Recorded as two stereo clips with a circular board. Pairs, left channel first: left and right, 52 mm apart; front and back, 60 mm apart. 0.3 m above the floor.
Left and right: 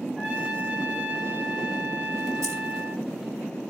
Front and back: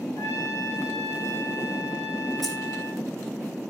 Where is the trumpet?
20° right, 5.5 m.